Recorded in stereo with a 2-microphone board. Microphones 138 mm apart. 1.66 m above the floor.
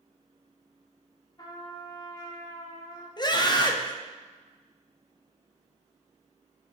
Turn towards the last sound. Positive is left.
turn(degrees=35)  # may be behind; listen again after turning